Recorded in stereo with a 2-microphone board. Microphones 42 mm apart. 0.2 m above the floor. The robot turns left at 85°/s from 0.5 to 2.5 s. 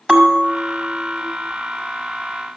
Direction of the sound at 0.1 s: 10° right (ahead or behind).